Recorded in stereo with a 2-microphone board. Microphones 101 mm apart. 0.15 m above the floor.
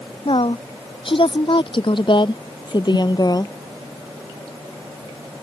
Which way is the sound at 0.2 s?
60° left (ahead or behind).